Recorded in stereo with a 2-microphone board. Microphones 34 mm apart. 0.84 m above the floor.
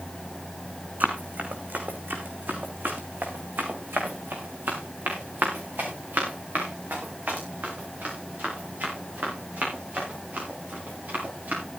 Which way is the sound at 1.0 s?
55° right (ahead or behind).